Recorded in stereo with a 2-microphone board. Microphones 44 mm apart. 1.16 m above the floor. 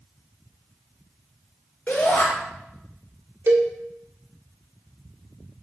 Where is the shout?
55° left (ahead or behind), 5 m.